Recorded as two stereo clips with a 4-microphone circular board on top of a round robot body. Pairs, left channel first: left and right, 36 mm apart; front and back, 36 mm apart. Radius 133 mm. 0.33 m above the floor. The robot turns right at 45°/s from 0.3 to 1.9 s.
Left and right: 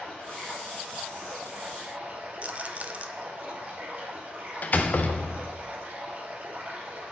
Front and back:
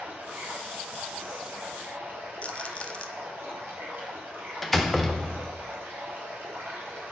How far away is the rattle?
About 1.0 m.